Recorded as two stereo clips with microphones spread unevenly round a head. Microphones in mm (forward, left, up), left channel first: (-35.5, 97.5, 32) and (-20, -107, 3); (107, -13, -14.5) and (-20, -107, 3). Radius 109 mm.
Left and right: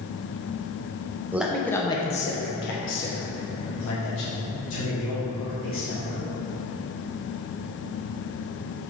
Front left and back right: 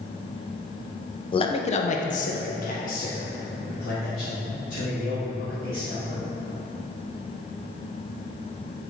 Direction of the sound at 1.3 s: 10° right.